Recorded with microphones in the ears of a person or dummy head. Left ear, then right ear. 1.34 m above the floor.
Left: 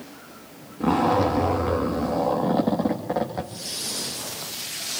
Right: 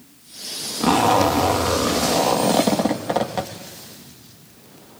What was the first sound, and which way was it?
A zipper, 65° right (ahead or behind).